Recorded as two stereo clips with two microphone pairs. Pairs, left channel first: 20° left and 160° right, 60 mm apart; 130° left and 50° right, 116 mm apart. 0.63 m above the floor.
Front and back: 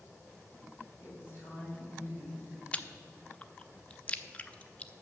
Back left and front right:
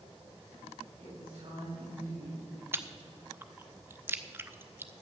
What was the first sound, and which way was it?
A woman speaking, 25° right.